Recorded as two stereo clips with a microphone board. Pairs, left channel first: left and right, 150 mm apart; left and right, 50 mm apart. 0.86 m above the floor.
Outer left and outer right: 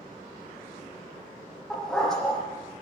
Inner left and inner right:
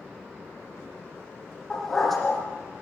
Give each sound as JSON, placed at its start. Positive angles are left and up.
{"t": 1.7, "sound": "a dog barking", "side_deg": 5, "distance_m": 9.0}